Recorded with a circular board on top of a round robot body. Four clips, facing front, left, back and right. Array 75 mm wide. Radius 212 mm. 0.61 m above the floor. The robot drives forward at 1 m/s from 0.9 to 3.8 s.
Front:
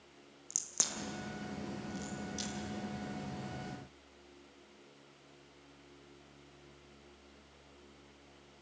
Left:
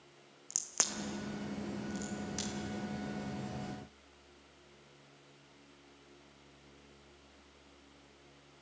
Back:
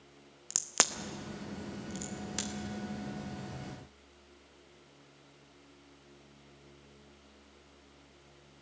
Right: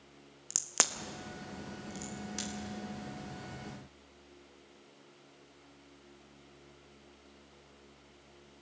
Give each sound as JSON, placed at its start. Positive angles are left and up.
{"t": 0.5, "sound": "a crack", "azimuth_deg": -155, "distance_m": 1.0}